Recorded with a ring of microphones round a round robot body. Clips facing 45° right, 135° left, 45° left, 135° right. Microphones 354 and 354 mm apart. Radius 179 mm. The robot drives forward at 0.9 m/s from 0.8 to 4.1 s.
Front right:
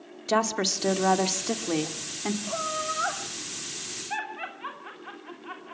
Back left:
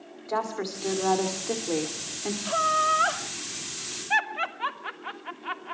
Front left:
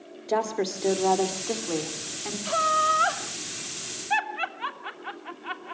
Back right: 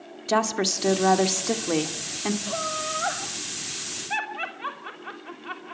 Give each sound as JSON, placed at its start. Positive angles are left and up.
{"t": 0.3, "sound": "a woman speaking", "azimuth_deg": -80, "distance_m": 2.0}
{"t": 2.5, "sound": "laughter", "azimuth_deg": 90, "distance_m": 2.5}